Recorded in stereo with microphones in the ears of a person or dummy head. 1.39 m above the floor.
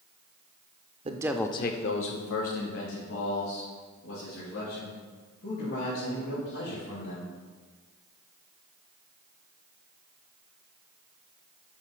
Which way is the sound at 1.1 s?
30° right (ahead or behind).